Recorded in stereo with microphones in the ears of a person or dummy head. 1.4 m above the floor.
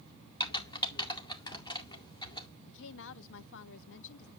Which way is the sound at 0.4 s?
25° left (ahead or behind).